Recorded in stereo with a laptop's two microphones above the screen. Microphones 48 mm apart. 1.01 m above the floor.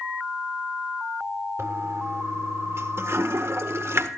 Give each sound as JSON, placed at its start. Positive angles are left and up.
{"t": 1.6, "sound": "a toilet flushing", "side_deg": -60, "distance_m": 1.4}